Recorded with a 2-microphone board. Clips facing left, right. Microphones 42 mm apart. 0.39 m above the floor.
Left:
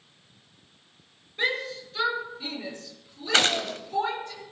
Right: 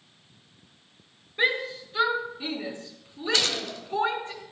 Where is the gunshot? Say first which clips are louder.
Left 6 dB; 50° left (ahead or behind), 1.4 m.